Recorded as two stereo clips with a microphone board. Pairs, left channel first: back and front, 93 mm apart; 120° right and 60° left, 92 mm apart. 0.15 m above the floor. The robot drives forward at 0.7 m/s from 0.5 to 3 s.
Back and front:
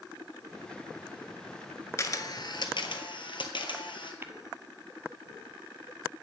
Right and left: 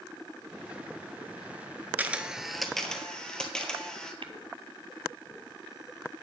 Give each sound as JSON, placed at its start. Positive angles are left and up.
{"t": 2.0, "sound": "a camera shutter", "azimuth_deg": 125, "distance_m": 0.6}
{"t": 4.2, "sound": "tapping", "azimuth_deg": 65, "distance_m": 0.6}